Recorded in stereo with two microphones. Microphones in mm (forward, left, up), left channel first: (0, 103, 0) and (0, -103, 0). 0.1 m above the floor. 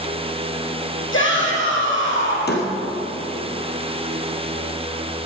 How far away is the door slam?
About 2 m.